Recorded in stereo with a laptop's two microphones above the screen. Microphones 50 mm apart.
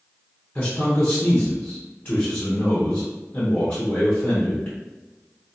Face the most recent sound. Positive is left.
turn(degrees=20)  # may be behind; listen again after turning